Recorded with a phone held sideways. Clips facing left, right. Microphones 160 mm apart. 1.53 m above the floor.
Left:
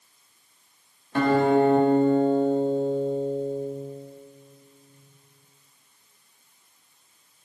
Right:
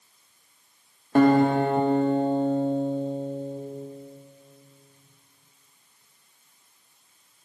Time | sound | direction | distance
1.1 | a guitar | 45° right (ahead or behind) | 1.7 m